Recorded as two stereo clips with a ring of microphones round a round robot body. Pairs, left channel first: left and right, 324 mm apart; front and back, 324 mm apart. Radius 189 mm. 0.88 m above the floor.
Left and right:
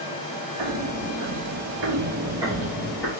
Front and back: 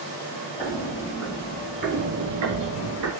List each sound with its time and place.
0.6 s footsteps: 80° right, 1.4 m; by 3.1 s 170° left, 1.3 m